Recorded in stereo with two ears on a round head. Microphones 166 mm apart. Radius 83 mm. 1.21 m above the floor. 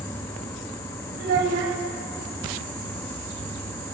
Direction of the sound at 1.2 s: 75° right (ahead or behind).